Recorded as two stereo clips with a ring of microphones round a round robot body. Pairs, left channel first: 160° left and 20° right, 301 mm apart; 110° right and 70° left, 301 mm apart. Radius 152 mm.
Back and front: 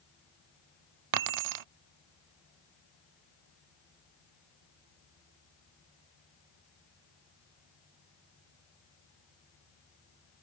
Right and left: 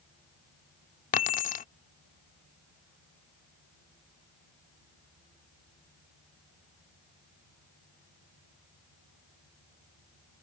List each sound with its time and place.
1.1 s keys jangling: 50° right